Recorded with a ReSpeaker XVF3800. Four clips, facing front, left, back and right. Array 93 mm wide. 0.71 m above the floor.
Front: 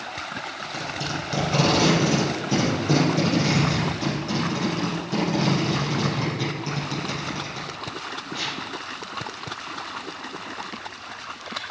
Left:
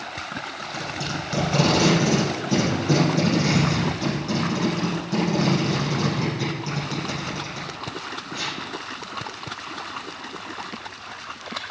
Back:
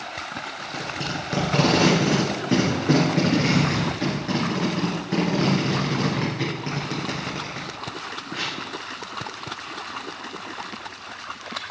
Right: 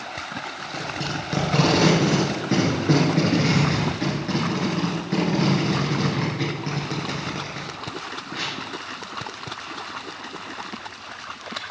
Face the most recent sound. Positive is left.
turn(degrees=-135)